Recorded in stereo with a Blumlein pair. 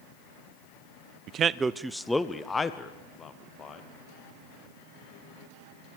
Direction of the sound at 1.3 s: 35° right.